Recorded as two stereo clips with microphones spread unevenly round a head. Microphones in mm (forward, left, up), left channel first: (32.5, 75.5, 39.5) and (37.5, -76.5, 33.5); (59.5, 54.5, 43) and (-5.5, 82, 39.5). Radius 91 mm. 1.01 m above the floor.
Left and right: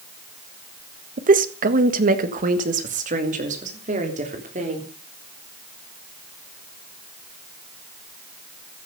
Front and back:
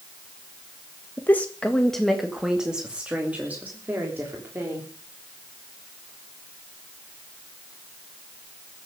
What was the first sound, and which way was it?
A woman speaking, 90° right.